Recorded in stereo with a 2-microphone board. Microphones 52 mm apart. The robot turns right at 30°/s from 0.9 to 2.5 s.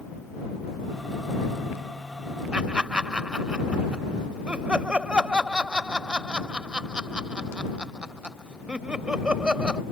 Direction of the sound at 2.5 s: 20° right (ahead or behind).